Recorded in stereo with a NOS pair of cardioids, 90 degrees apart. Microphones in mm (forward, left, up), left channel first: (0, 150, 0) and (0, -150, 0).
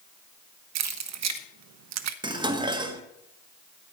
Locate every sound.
0.8 s keys jangling: 65° right, 0.9 m
2.2 s dishes clattering: 15° right, 1.5 m